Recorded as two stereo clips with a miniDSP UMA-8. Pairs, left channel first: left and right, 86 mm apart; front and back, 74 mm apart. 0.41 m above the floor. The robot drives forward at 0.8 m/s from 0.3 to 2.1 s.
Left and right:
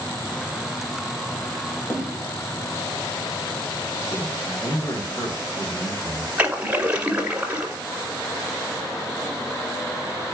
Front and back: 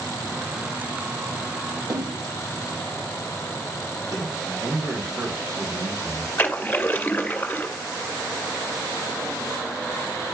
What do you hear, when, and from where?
1.9 s a splash: 150° left, 2.5 m
4.6 s a man speaking: 125° left, 2 m
6.4 s a splash: 35° right, 1.6 m